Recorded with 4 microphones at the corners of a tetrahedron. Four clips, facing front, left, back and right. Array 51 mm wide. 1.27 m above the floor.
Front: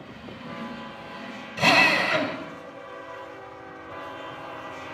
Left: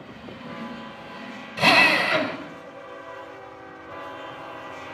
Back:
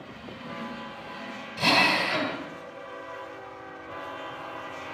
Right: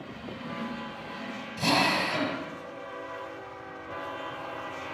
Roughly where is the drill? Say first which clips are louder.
Left 8 dB, front 3 dB; left.